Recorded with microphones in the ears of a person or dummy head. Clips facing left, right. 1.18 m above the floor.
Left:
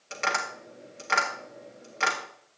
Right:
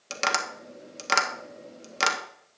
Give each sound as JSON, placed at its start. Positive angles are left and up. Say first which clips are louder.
{"t": 0.1, "sound": "tapping", "louder": "right 2 dB", "side_deg": -55, "distance_m": 1.5}